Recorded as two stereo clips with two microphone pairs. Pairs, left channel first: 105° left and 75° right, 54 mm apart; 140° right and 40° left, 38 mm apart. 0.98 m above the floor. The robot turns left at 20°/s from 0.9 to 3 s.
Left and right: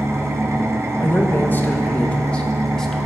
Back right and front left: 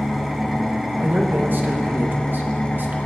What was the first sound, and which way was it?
An engine running, 45° right.